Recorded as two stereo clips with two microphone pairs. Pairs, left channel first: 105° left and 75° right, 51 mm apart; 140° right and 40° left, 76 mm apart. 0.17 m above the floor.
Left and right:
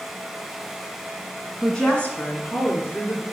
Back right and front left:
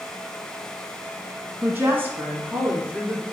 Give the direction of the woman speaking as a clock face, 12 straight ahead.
11 o'clock.